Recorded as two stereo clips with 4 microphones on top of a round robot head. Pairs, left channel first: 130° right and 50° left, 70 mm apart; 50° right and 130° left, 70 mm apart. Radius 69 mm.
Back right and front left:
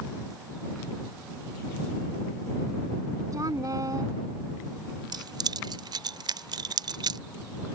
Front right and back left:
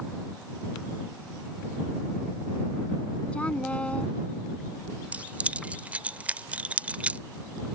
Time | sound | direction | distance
3.3 | a woman speaking | 25° left | ?
5.1 | keys jangling | 60° left | ?